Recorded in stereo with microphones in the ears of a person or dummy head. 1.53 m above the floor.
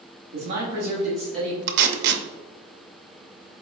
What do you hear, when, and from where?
0.3 s a man speaking: 50° right (ahead or behind), 1.0 m; by 1.6 s 10° left (ahead or behind), 2 m
1.7 s tape being pulled: 55° right (ahead or behind), 0.6 m